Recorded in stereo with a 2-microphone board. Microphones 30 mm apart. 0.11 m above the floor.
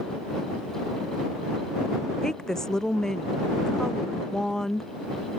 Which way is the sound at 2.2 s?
20° left (ahead or behind).